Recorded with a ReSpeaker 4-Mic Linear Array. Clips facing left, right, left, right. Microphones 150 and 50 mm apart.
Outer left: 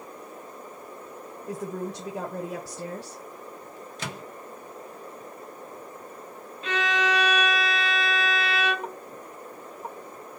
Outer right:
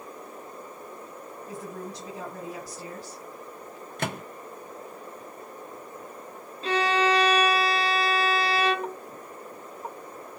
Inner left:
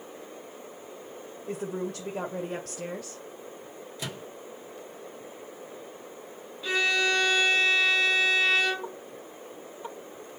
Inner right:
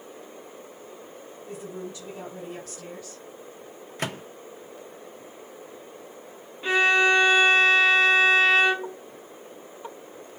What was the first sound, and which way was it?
A woman speaking, 80° left.